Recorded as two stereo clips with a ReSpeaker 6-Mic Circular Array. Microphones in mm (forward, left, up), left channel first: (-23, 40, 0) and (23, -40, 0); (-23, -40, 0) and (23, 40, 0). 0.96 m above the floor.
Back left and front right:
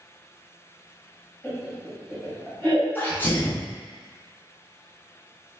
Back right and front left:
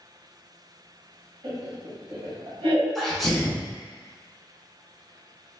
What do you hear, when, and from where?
1.4 s laughter: 45° left, 1.4 m
3.0 s a sneeze: 155° left, 0.6 m